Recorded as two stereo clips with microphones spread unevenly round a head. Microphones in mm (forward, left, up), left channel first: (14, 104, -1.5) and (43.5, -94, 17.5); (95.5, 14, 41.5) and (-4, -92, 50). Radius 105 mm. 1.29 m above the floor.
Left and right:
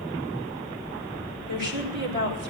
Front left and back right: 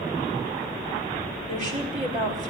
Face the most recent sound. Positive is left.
turn(degrees=-100)